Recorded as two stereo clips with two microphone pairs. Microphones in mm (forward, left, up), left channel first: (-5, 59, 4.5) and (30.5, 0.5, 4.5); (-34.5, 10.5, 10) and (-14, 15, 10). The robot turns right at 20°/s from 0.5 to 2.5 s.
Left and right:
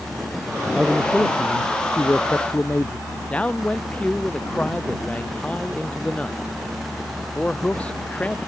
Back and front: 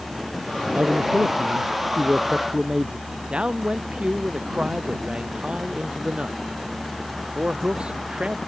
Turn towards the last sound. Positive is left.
turn(degrees=50)